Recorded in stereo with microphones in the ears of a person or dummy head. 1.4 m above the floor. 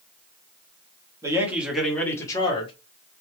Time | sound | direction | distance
1.2 | a man speaking | 15° right (ahead or behind) | 1.2 m